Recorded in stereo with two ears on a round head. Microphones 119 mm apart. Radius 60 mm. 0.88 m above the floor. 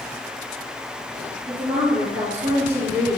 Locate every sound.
1.5 s a woman speaking: 40° right (ahead or behind), 3 m